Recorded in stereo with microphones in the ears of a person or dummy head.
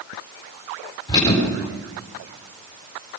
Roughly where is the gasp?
I don't hear a gasp.